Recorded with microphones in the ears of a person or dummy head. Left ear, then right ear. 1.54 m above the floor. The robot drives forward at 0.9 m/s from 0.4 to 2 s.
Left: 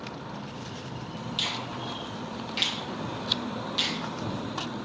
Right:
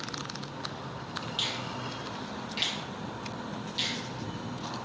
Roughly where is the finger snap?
Centre.